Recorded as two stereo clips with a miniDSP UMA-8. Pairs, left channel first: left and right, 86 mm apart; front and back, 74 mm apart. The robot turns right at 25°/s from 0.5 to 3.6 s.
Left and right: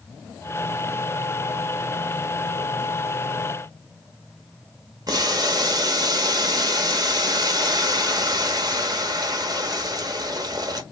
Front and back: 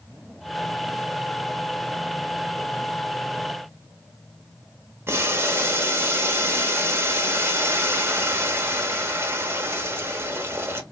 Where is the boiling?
125° right, 0.8 m.